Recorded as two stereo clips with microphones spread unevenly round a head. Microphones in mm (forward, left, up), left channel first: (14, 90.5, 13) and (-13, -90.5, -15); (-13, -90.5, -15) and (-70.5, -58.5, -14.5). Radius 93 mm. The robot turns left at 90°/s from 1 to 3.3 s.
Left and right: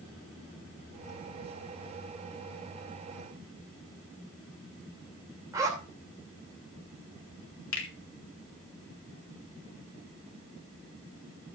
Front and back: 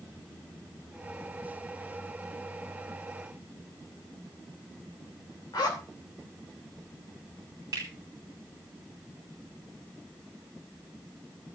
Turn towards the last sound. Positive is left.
turn(degrees=85)